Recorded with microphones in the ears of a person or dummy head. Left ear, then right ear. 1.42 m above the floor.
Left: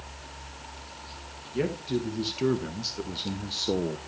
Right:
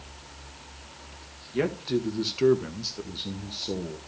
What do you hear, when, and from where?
1.5 s a man speaking: 40° right (ahead or behind), 1.5 m; by 4.0 s 60° left (ahead or behind), 0.9 m